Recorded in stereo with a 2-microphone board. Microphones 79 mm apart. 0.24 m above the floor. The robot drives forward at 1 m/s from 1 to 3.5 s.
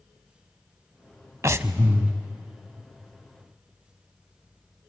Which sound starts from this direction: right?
Breathing, at 1.4 s.